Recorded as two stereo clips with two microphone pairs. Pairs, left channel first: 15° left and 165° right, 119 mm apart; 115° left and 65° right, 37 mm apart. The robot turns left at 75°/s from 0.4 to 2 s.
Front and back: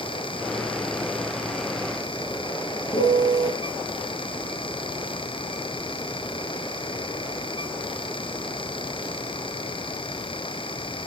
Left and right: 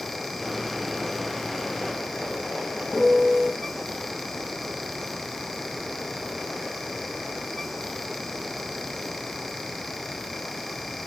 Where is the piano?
15° left, 2 m.